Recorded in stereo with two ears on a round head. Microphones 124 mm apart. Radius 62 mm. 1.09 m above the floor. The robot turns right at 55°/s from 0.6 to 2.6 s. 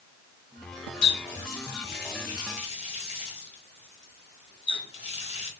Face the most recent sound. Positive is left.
turn(degrees=50)  # may be behind; listen again after turning